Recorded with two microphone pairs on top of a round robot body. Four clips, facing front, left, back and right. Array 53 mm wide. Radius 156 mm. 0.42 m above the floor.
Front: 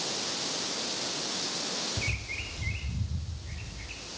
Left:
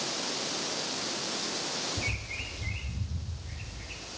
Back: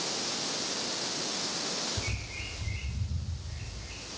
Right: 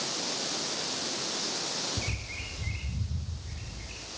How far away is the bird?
About 3 m.